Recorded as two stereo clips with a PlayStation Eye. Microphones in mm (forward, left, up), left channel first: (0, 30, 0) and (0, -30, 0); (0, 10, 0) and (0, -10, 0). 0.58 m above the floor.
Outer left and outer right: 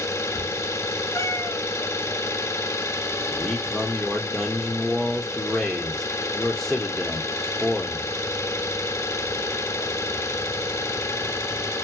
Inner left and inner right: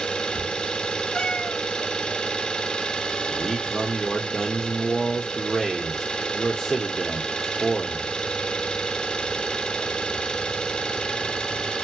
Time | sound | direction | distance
0.0 | an engine running | 55° left (ahead or behind) | 1.6 m
1.1 | a cat meowing | 60° left (ahead or behind) | 3.5 m
3.3 | a man speaking | 10° left (ahead or behind) | 1.6 m